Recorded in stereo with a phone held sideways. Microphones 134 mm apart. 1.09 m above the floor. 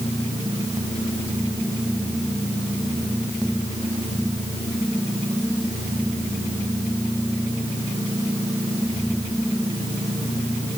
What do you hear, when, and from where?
Only background noise.